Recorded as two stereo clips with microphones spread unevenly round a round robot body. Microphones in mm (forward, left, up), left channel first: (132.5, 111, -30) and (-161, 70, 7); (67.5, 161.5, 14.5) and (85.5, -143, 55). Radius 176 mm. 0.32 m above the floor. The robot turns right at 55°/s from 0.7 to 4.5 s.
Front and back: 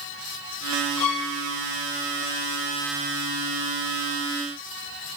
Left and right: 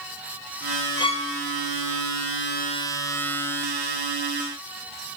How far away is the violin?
About 1.6 m.